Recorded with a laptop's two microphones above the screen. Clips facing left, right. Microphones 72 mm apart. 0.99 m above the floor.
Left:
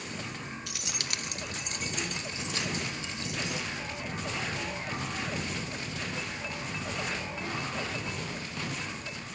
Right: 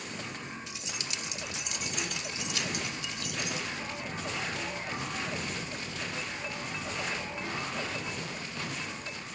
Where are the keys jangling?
75° left (ahead or behind), 0.7 m; by 3.7 s 30° left (ahead or behind), 4 m.